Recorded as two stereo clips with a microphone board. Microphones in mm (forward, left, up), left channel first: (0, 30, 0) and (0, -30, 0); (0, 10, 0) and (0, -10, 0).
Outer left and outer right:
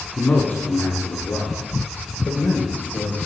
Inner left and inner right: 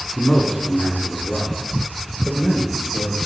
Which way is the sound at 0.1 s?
20° left (ahead or behind).